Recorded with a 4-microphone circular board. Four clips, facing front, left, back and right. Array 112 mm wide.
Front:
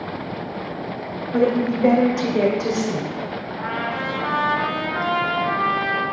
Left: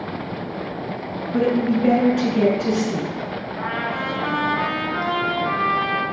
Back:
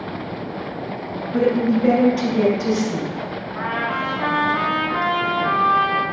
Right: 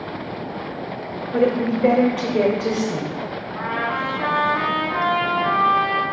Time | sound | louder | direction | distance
1.3 | a woman speaking | even, back 1 dB | 60° right | 1.8 m
3.5 | a trumpet | right 2 dB, back 3 dB | 135° right | 2 m